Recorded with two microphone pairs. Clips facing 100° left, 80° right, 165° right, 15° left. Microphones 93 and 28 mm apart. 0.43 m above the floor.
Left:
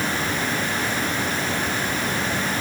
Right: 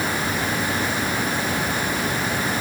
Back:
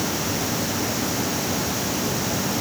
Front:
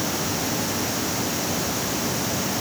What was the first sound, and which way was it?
Only background noise.